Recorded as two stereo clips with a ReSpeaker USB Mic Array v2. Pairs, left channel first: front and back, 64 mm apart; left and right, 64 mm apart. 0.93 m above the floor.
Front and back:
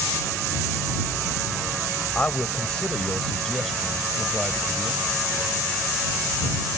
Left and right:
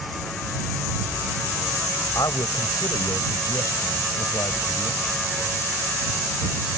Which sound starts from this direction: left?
A man speaking, at 2.1 s.